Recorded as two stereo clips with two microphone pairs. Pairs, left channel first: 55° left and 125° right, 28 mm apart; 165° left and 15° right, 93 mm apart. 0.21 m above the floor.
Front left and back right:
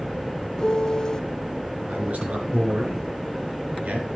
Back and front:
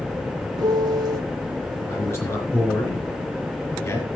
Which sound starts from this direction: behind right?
A man speaking, at 1.9 s.